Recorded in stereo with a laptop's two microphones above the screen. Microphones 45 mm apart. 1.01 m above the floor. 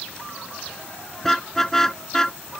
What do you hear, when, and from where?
1.2 s a car horn: 10° left (ahead or behind); by 2.4 s 15° left (ahead or behind)